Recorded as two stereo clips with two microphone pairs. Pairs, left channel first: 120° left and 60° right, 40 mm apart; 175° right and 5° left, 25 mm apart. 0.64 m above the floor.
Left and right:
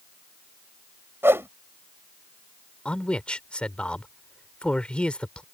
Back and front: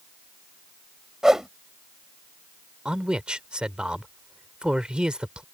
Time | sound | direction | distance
1.2 | a whoosh | 60° right | ?
2.9 | a man speaking | 55° left | ?